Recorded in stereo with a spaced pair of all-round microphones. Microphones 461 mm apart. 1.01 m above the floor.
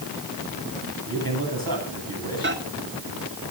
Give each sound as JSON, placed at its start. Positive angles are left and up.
{"t": 1.1, "sound": "a man speaking", "side_deg": -50, "distance_m": 8.5}
{"t": 2.4, "sound": "a microwave", "side_deg": -25, "distance_m": 2.0}